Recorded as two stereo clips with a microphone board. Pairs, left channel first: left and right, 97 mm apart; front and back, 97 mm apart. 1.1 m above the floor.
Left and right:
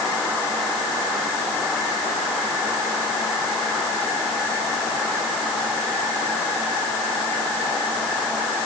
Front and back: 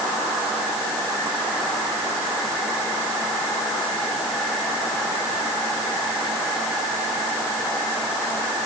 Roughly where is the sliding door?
I don't hear a sliding door.